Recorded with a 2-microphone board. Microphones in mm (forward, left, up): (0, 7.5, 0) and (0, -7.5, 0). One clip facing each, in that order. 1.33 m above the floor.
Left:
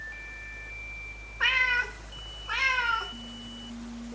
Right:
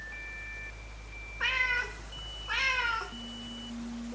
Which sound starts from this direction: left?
A cat meowing, at 1.4 s.